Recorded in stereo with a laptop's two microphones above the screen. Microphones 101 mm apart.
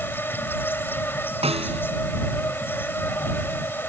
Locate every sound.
0.0 s an insect: 20° left (ahead or behind)
1.4 s a snare drum: 75° right (ahead or behind)